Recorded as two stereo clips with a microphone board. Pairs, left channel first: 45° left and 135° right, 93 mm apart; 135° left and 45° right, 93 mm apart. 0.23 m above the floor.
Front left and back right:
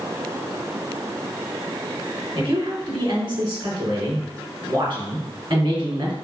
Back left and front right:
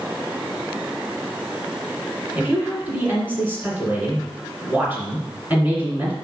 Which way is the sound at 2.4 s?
115° right.